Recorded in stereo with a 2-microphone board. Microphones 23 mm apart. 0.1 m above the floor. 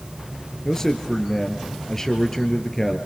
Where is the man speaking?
15° left (ahead or behind), 2.5 m.